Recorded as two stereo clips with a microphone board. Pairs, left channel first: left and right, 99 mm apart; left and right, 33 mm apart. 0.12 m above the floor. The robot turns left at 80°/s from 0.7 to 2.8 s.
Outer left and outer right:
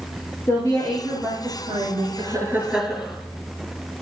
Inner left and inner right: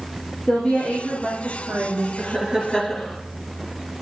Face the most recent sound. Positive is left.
turn(degrees=-175)